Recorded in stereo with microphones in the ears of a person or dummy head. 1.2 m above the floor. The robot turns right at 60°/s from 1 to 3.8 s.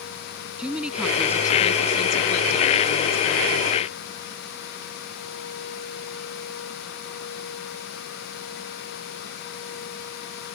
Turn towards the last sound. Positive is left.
turn(degrees=160)